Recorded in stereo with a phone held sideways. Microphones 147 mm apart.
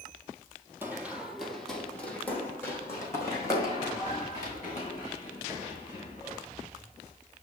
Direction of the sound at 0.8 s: 15° right (ahead or behind).